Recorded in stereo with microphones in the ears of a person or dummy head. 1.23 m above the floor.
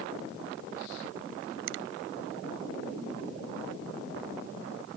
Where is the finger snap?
70° right (ahead or behind).